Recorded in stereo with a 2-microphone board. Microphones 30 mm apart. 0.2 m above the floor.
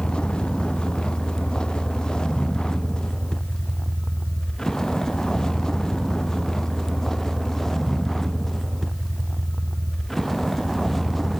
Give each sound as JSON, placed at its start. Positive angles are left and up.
{"t": 0.0, "sound": "a vehicle", "side_deg": 35}